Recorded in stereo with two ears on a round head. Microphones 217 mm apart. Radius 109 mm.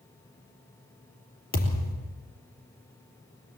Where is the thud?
40° left (ahead or behind), 4 m.